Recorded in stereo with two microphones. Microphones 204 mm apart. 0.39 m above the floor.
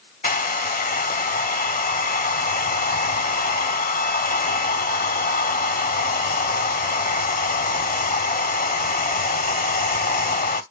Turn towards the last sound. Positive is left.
turn(degrees=45)  # may be behind; listen again after turning